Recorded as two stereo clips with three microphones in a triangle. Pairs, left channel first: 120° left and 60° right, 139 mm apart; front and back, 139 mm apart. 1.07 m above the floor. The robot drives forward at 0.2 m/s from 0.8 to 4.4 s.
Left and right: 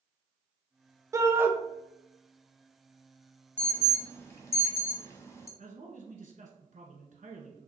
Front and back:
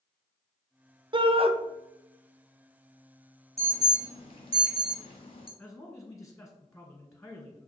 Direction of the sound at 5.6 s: 90° right.